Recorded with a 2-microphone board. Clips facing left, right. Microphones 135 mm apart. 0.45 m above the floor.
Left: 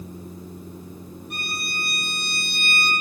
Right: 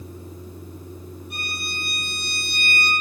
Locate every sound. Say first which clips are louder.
1.3 s a violin: left 3 dB; 55° left (ahead or behind), 3.5 m